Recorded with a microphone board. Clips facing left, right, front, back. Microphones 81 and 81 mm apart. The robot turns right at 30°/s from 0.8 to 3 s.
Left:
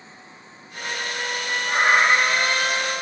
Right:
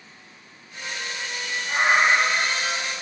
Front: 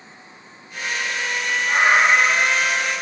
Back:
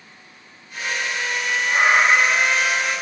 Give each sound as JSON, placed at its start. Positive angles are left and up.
{"t": 1.7, "sound": "a cat meowing", "azimuth_deg": 50, "distance_m": 3.5}